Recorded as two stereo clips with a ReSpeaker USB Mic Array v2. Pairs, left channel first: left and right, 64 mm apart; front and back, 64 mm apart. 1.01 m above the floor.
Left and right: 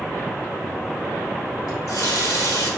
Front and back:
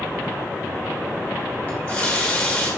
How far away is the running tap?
About 2 m.